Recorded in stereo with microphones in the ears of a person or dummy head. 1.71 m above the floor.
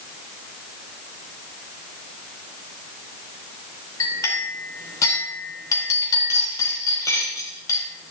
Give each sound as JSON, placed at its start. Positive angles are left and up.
{"t": 4.0, "sound": "a clink", "side_deg": 20, "distance_m": 4.5}